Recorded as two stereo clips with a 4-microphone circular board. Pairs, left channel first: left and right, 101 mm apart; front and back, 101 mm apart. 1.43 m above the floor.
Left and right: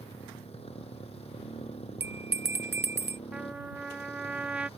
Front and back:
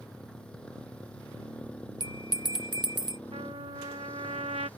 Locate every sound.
0.0 s a motorcycle: 80° left; by 4.8 s 75° left
2.0 s a bell: 150° right
3.3 s a trumpet: 170° right